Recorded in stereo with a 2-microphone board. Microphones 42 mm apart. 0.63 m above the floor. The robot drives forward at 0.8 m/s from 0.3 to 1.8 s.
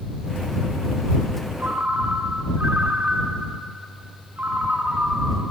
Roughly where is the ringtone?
Right.